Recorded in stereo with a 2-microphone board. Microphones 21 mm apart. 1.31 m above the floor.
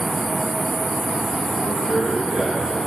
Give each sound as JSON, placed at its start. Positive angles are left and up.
{"t": 1.6, "sound": "a man speaking", "side_deg": -70, "distance_m": 7.0}